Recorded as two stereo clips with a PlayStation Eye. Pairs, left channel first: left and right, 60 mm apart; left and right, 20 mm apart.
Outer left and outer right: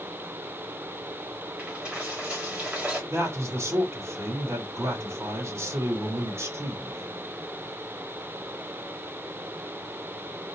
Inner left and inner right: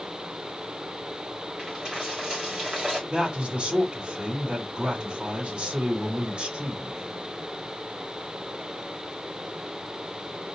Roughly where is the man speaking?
Right.